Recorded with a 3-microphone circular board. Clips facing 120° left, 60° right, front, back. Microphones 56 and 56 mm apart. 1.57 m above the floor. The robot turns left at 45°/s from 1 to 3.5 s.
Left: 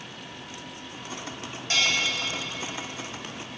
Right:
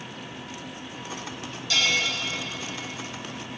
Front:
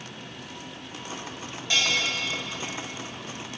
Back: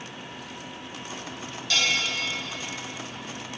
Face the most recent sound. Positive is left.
turn(degrees=-10)